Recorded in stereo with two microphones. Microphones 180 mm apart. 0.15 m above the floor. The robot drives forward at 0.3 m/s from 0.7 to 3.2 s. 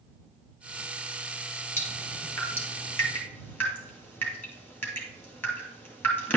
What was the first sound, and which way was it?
Dripping, 10° left (ahead or behind).